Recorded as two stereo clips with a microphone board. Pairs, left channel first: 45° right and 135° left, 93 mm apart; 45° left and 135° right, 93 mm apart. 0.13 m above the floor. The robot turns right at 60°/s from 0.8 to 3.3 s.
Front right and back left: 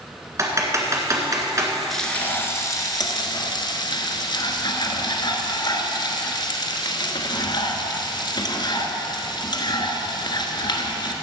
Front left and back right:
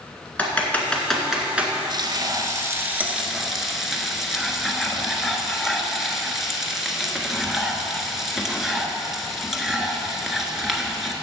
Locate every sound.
0.4 s typing on a keyboard: 110° left, 1.8 m; by 1.7 s 165° left, 1.8 m
1.9 s frying: 130° right, 1.2 m; by 11.1 s 50° right, 1.2 m